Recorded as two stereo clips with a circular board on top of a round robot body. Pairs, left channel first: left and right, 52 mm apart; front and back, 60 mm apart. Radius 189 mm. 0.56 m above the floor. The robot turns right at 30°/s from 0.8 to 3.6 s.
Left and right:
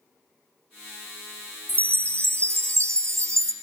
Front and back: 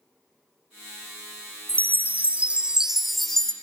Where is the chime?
135° right, 0.6 m; by 3.5 s 80° right, 0.6 m.